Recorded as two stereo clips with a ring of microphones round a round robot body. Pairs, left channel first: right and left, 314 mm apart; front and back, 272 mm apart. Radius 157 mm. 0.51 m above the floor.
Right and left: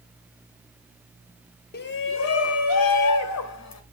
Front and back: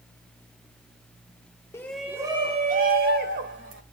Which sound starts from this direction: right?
A shout, at 1.7 s.